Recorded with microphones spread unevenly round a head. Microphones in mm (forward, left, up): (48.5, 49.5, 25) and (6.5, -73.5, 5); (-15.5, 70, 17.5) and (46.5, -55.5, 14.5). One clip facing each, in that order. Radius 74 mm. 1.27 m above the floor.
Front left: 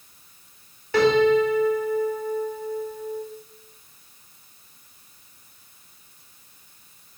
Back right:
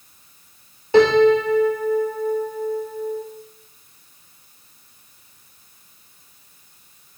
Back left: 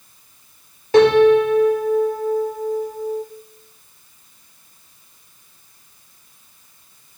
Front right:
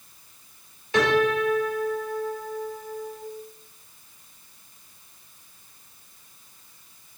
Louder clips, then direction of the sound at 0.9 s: Back right 4 dB, back left 10 dB; 175° left.